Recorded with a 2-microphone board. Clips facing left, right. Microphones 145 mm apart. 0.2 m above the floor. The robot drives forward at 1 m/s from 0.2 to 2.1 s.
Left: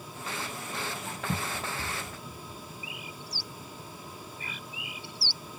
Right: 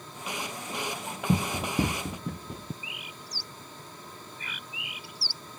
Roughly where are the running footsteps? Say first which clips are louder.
Right 8 dB; right.